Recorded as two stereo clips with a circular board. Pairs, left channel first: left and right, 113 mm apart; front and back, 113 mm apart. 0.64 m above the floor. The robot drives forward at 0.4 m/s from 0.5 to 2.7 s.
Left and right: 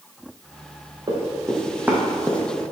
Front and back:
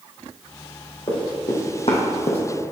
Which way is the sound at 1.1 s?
40° right.